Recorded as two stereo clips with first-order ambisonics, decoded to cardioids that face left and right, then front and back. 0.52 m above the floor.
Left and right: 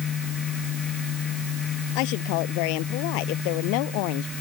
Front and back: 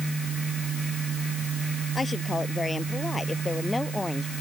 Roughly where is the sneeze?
No sneeze in this recording.